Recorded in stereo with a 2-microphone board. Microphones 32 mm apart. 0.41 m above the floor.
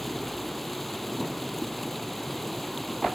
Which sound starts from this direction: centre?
Running water, at 0.0 s.